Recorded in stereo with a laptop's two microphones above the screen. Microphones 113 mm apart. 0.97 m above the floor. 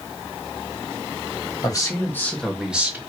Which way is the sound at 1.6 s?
35° left (ahead or behind).